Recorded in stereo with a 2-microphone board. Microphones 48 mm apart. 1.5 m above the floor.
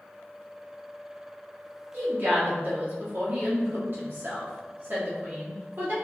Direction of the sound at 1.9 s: 45° right (ahead or behind).